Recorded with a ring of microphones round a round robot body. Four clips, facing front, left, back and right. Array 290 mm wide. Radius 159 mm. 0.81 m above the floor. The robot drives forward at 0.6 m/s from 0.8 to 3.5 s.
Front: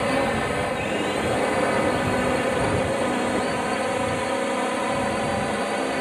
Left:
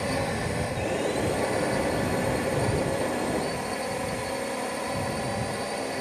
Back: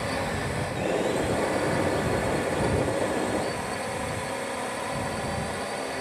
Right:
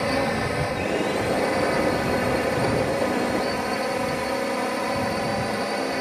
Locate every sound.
0.0 s a drone: 30° right; by 6.0 s 35° right